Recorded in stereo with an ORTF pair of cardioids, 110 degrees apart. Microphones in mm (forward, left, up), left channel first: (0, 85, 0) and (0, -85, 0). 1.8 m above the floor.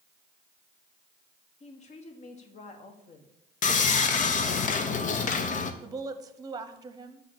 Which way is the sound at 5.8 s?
25° right.